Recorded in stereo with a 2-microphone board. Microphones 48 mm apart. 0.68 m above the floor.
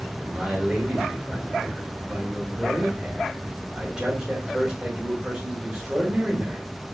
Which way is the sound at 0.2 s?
15° right (ahead or behind).